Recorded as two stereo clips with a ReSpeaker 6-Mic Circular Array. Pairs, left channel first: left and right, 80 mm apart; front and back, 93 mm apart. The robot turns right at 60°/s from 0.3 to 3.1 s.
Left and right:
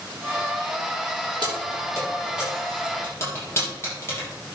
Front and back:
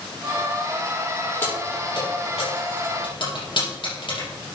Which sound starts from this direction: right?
Keys jangling, at 1.4 s.